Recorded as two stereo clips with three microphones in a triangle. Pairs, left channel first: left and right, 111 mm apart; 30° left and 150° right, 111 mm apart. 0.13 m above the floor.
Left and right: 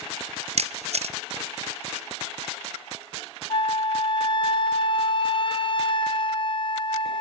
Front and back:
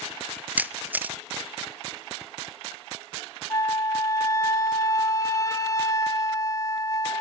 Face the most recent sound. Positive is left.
turn(degrees=80)